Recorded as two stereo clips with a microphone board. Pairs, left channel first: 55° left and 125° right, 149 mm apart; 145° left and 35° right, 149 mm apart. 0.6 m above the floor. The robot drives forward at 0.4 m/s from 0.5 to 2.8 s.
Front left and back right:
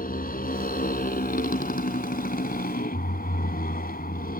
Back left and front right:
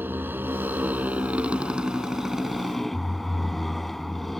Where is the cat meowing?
No cat meowing in this recording.